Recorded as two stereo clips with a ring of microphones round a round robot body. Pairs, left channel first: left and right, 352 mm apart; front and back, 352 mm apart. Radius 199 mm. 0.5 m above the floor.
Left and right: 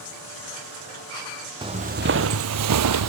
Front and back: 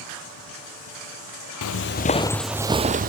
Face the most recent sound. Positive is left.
turn(degrees=-120)